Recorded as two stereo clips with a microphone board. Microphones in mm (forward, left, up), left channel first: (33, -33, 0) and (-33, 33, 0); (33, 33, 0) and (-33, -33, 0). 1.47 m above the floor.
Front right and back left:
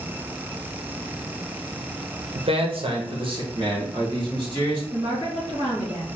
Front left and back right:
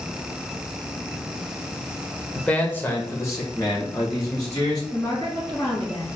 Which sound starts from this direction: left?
A woman speaking, at 4.9 s.